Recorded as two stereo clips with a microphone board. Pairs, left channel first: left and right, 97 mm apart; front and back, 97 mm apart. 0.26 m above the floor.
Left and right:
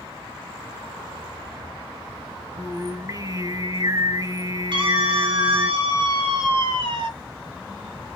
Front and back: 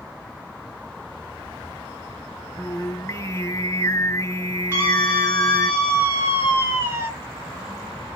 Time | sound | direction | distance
2.6 | singing | 50° right | 0.8 m
4.7 | a scream | 115° right | 4 m